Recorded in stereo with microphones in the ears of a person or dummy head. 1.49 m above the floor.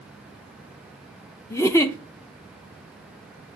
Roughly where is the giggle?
Centre.